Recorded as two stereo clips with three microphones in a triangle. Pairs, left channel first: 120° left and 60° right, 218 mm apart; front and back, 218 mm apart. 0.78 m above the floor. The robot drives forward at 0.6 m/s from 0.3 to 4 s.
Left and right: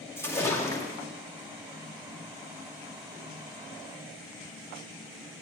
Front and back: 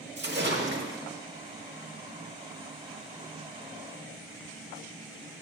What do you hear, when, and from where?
0.2 s a splash: 165° right, 1.7 m; by 1.0 s 170° right, 2 m